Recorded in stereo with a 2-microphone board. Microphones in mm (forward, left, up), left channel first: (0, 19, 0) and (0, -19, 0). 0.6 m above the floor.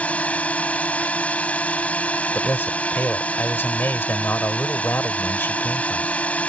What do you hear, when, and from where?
0.0 s a drone: 35° left (ahead or behind)
2.3 s a man speaking: 70° left (ahead or behind)